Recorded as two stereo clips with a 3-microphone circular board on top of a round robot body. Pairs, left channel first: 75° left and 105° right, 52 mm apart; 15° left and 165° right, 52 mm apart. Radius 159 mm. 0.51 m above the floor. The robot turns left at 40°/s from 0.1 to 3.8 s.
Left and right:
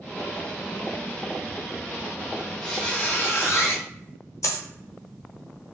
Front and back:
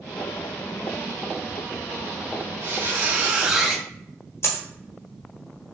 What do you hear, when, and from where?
2.6 s a squeak: 155° left, 0.9 m; by 3.8 s 105° left, 0.9 m
4.4 s a dropped coin: 55° left, 1.2 m